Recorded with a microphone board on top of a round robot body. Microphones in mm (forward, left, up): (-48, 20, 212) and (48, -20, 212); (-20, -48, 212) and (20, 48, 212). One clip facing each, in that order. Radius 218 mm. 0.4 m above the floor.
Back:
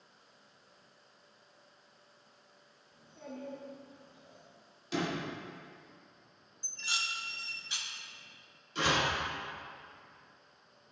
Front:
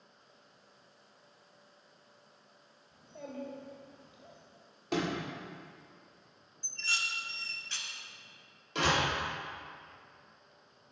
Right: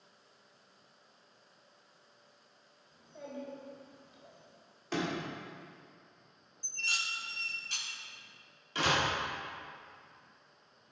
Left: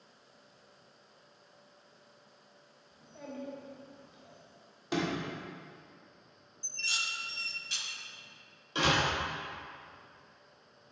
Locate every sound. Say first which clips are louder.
2.9 s a child speaking: front 2 dB, even; 30° right, 1.6 m
4.9 s a sliding door: front 2 dB, left 2 dB; 5° right, 2.0 m
6.6 s dishes clattering: front 1 dB, even; 130° right, 0.8 m
8.8 s a door slam: front 1 dB, left 2 dB; straight ahead, 2.0 m